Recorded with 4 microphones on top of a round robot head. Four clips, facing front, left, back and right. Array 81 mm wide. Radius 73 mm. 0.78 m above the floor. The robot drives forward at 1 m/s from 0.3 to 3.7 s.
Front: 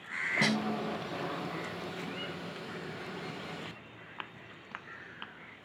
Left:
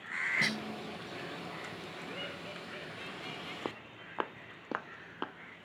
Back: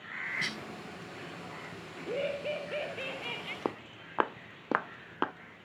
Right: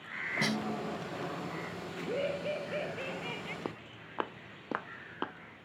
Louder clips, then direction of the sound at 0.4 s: Right 2 dB, front 8 dB; 15° right.